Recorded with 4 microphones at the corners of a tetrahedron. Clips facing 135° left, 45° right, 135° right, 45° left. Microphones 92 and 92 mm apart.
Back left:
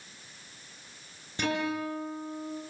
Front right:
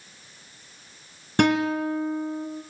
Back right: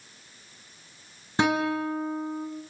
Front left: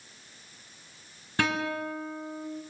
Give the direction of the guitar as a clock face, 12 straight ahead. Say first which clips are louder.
Front right 9 dB, back right 5 dB; 2 o'clock.